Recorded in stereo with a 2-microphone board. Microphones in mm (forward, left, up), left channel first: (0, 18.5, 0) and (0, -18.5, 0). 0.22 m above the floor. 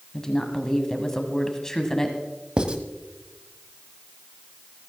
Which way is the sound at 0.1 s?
15° left (ahead or behind).